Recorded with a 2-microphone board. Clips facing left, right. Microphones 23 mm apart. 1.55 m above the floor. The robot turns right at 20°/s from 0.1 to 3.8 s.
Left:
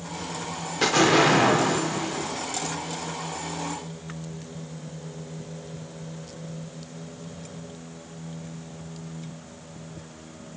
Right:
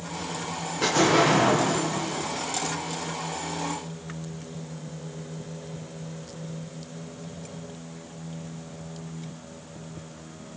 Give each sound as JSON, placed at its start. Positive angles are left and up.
{"t": 0.8, "sound": "an explosion", "azimuth_deg": 50, "distance_m": 1.1}